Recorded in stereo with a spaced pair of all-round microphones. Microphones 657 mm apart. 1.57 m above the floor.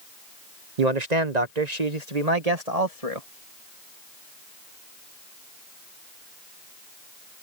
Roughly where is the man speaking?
Right.